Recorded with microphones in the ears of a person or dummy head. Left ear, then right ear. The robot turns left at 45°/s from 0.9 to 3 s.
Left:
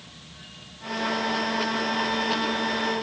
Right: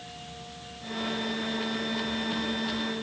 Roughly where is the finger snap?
I don't hear a finger snap.